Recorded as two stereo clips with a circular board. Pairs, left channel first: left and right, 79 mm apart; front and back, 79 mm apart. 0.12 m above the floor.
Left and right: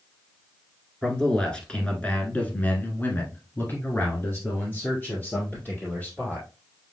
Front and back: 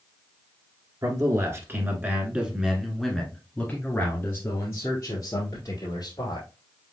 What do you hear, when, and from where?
1.0 s a man speaking: 170° left, 1.6 m; by 6.5 s 25° left, 2.5 m